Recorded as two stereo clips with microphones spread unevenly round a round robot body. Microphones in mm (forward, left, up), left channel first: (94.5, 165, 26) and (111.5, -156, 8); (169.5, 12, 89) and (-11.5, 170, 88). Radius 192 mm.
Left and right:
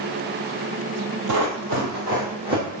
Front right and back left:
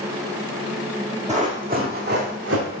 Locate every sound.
1.3 s running footsteps: 125° right, 1.2 m; by 2.8 s 170° right, 2 m